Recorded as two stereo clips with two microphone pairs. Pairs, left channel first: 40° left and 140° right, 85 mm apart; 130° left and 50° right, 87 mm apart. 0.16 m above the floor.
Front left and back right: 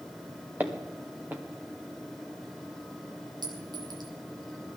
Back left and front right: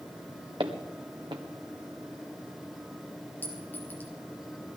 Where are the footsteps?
70° right, 1.9 m.